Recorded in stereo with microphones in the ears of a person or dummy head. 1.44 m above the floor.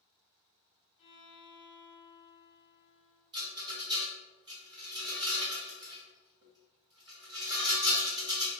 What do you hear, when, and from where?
1.0 s a violin: 25° left (ahead or behind), 0.7 m
3.3 s a rattle: 20° right (ahead or behind), 1.0 m